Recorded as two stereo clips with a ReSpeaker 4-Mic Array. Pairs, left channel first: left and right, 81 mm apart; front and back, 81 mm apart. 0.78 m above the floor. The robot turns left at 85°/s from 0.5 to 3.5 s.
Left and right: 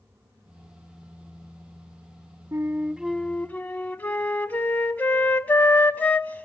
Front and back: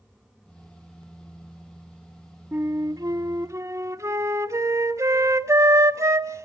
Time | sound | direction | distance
2.5 | a flute | 125° right | 0.9 m